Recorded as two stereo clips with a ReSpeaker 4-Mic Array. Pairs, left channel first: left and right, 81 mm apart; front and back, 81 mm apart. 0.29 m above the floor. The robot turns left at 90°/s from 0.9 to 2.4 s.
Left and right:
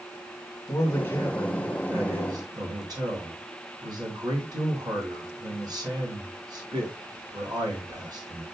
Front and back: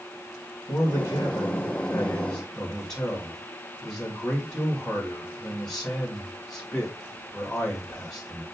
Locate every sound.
0.7 s a man speaking: 50° left, 2.5 m; by 8.4 s 85° right, 2.5 m